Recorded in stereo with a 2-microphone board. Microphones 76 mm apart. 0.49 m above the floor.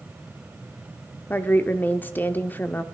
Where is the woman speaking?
25° left (ahead or behind), 0.8 m.